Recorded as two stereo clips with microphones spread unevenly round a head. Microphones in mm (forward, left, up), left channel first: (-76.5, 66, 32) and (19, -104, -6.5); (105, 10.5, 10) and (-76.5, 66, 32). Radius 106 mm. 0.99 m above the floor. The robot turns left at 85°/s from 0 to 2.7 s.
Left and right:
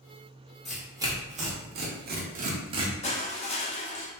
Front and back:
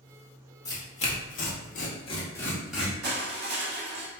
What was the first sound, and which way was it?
Tearing paper, 50° left.